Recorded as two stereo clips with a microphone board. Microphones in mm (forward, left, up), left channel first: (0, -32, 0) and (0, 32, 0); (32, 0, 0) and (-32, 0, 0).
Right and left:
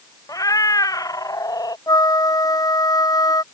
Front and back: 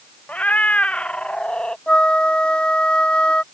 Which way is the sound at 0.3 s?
70° right.